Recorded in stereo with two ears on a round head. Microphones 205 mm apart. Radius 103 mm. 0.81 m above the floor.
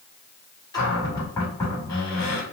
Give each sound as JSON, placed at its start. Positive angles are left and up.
{"t": 0.7, "sound": "a cupboard door", "side_deg": 15, "distance_m": 2.5}